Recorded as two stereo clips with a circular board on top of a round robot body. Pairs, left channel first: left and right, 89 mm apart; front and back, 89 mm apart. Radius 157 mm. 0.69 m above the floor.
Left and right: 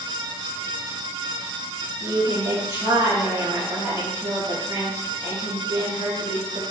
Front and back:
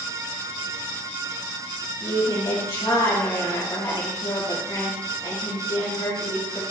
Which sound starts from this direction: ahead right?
A woman speaking, at 2.0 s.